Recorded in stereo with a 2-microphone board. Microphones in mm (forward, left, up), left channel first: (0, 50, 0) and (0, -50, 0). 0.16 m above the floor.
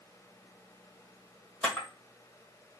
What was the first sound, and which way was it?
A camera shutter, 10° left (ahead or behind).